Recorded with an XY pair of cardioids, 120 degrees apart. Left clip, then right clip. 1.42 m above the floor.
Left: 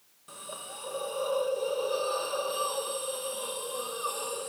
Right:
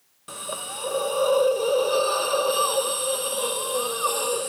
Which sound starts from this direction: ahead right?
A hiss, at 0.3 s.